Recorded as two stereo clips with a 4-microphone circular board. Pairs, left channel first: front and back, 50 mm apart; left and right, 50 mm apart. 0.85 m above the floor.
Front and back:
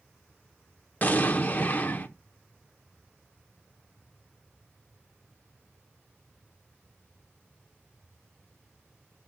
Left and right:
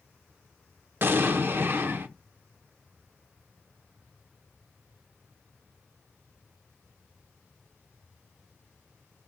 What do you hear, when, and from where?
1.0 s an explosion: 50° right, 0.8 m